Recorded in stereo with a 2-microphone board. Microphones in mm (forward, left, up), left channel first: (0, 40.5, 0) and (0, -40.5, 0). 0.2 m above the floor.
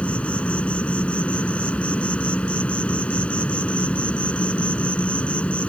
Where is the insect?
15° left (ahead or behind).